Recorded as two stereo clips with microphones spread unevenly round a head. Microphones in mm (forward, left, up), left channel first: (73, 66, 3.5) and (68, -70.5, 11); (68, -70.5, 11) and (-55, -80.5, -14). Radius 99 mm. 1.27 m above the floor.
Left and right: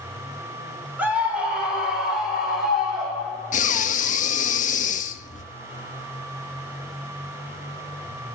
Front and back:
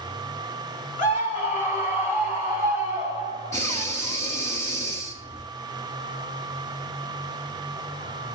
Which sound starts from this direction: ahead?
A scream, at 1.0 s.